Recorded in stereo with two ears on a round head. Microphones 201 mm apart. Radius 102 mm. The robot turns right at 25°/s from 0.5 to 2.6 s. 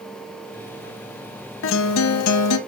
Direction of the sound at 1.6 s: 55° left (ahead or behind).